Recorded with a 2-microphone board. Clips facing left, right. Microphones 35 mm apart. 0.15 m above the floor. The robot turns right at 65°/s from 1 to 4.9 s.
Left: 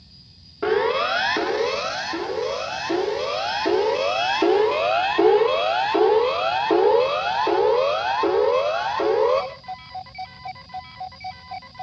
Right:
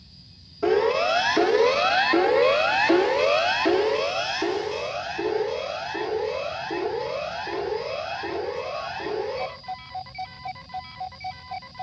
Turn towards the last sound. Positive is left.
turn(degrees=55)  # may be behind; listen again after turning